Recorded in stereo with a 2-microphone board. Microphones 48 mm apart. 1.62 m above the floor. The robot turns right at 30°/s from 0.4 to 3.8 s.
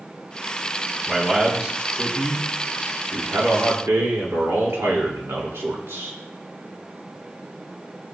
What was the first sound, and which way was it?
A man speaking, straight behind.